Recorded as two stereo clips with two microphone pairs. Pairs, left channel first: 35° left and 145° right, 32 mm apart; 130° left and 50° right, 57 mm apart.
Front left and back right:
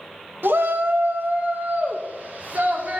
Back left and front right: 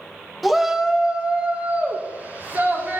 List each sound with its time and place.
0.4 s a shout: 140° right, 1.1 m; by 3.0 s 105° right, 3 m